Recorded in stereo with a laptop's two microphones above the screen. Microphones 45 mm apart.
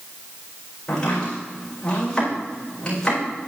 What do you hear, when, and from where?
0.9 s chopping: 20° left (ahead or behind), 4 m